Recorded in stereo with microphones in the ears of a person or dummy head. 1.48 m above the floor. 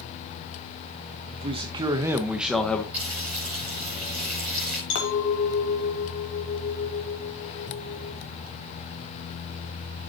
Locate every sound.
1.3 s a man speaking: 40° right (ahead or behind), 1.6 m; by 2.8 s 10° left (ahead or behind), 1.2 m
2.9 s frying: 10° right (ahead or behind), 7 m
4.9 s a clink: 70° left (ahead or behind), 2.5 m